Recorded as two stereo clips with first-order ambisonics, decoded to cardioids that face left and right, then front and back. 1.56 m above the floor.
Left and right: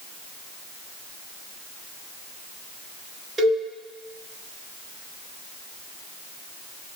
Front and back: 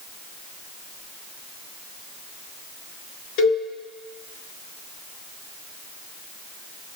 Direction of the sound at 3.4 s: 20° right.